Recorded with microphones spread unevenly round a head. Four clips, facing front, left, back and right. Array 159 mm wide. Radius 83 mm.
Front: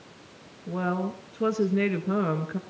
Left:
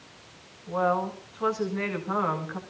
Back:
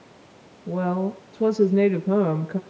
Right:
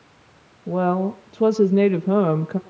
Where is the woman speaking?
120° right, 1.4 m.